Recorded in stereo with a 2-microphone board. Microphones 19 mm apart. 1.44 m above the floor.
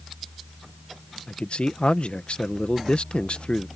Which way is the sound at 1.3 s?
60° left (ahead or behind).